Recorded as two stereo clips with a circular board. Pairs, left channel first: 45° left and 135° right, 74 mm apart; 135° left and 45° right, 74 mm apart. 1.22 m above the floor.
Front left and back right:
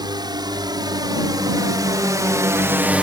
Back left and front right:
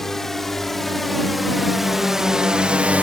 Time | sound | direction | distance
0.0 | a drone | 140° right | ?